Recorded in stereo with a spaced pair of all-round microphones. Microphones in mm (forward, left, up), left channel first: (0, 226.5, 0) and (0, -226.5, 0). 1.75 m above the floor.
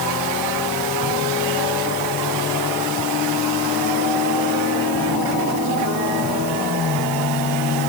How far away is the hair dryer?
No hair dryer in this recording.